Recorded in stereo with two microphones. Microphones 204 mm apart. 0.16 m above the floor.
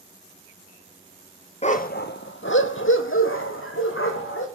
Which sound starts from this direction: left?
A dog barking, at 1.6 s.